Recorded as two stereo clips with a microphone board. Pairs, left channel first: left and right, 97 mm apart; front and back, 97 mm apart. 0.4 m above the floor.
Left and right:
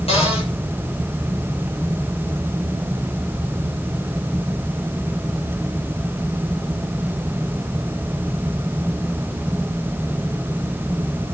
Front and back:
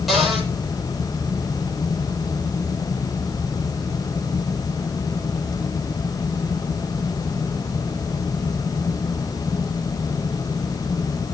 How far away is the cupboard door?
About 8.5 m.